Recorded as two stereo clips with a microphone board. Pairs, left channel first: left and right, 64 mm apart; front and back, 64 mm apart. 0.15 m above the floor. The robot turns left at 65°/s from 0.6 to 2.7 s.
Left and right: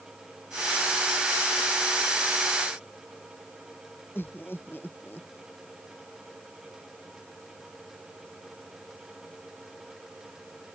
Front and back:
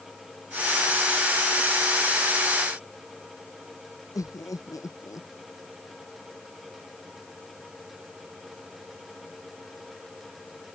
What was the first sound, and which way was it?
Laughter, 30° left.